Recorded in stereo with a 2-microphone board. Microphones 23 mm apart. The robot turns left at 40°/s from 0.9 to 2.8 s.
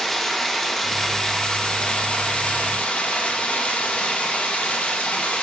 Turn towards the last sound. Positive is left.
turn(degrees=100)